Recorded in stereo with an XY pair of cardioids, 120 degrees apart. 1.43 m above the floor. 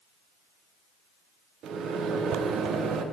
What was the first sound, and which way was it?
A microwave, 60° right.